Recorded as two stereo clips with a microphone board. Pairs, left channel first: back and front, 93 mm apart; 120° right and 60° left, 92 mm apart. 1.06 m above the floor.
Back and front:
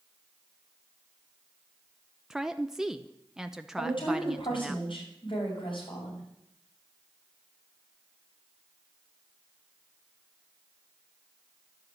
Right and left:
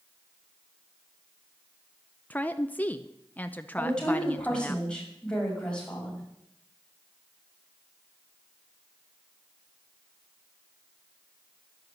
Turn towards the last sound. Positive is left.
turn(degrees=160)